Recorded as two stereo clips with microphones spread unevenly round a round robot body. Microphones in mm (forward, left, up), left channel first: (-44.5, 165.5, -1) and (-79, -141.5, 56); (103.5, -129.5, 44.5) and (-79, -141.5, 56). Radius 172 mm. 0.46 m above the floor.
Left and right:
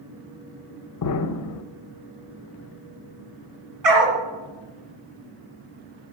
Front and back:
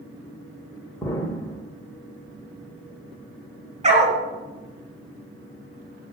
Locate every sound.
1.0 s an explosion: 75° left, 0.6 m
3.8 s a dog barking: 125° right, 2 m